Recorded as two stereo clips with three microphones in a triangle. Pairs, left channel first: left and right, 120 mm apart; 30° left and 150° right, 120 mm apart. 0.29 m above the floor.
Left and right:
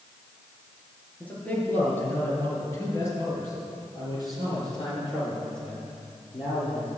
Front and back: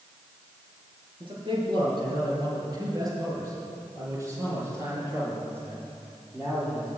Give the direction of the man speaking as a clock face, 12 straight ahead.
6 o'clock.